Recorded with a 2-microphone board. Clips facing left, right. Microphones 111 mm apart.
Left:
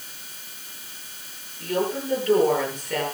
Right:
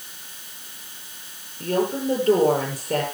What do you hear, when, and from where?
1.6 s a woman speaking: 35° right (ahead or behind), 7.5 m